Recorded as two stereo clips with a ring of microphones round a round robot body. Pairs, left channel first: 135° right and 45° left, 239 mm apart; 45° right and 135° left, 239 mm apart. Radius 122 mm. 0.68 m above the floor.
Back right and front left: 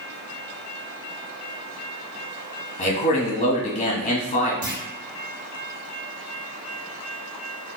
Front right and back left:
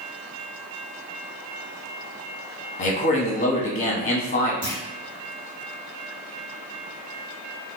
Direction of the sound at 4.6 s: 80° left.